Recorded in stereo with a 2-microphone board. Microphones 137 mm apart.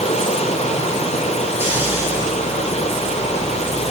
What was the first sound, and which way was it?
Running water, 60° left (ahead or behind).